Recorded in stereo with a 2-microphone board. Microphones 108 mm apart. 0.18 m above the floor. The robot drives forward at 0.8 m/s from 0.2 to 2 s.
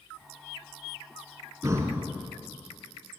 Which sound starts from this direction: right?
Breathing, at 1.6 s.